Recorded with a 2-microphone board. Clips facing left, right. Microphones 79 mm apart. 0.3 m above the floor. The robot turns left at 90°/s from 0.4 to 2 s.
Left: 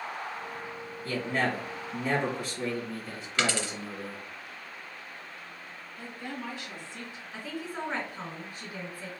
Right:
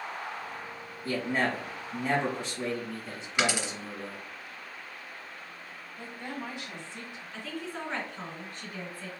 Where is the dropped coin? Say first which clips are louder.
Right 1 dB; 15° right (ahead or behind), 0.6 m.